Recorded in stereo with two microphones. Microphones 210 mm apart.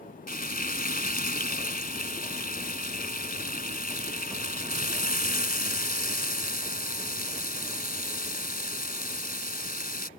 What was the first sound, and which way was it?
Frying, 40° left (ahead or behind).